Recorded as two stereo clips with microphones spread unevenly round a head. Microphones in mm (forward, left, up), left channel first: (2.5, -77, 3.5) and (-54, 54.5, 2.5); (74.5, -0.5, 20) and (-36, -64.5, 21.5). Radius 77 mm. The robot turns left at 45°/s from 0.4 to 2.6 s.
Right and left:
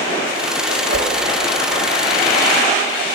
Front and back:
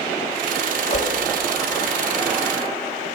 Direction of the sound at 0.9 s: 80° left.